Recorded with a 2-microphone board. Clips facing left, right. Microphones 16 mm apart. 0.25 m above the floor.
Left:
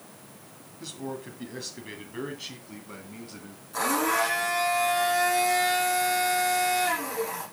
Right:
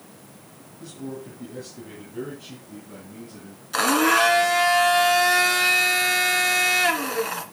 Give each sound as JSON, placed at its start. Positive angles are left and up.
{"t": 0.8, "sound": "a man speaking", "side_deg": 45, "distance_m": 2.0}
{"t": 3.7, "sound": "a blender", "side_deg": -65, "distance_m": 1.9}